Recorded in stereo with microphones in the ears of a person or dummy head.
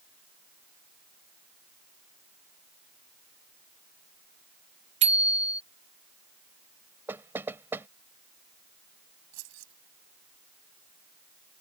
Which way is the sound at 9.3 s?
85° right.